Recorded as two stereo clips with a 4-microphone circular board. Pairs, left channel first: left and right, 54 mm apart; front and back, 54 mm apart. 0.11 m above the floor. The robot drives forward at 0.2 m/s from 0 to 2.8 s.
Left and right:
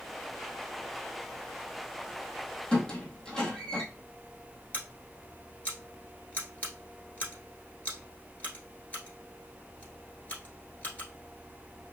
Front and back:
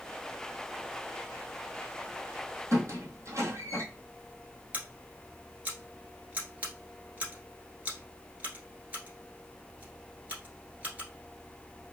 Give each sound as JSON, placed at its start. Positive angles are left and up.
{"t": 2.7, "sound": "a squeak", "azimuth_deg": 170, "distance_m": 1.4}
{"t": 4.7, "sound": "scissors", "azimuth_deg": 135, "distance_m": 1.3}